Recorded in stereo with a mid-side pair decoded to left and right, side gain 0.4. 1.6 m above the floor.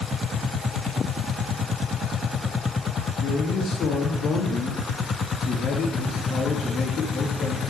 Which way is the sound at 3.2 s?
65° left.